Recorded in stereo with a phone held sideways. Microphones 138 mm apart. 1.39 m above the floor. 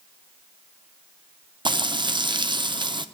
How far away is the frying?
About 0.6 m.